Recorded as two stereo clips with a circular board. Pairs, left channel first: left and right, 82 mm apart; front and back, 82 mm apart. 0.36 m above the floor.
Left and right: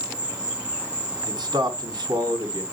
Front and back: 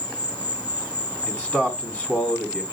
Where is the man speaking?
70° right, 3 m.